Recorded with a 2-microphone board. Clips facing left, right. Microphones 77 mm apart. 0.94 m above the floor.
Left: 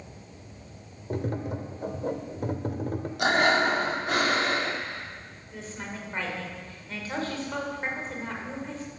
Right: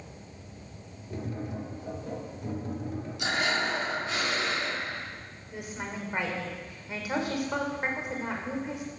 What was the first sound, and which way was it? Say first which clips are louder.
Tapping: left 5 dB; 65° left (ahead or behind).